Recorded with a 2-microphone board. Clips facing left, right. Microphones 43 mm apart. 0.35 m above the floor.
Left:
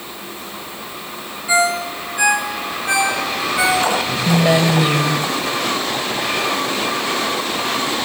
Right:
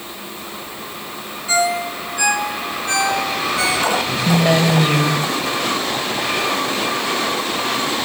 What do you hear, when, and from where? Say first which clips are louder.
1.5 s a ringtone: left 2 dB; 20° left (ahead or behind), 4 m
4.2 s a woman speaking: left 1 dB; 5° left (ahead or behind), 1.9 m